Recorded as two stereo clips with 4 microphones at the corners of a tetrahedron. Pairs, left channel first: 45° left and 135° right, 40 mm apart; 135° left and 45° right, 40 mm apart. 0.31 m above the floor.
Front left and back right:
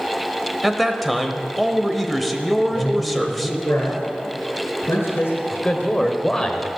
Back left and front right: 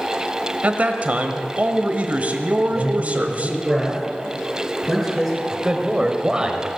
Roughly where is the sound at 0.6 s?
Ahead right.